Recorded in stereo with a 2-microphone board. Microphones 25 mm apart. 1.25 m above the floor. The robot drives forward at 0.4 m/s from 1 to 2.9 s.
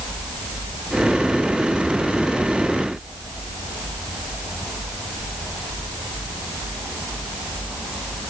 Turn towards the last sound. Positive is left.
No sound to turn to.